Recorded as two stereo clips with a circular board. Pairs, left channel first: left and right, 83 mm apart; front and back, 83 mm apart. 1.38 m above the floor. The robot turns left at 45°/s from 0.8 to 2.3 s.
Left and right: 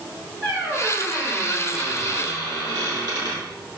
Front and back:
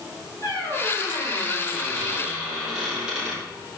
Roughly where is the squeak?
Ahead right.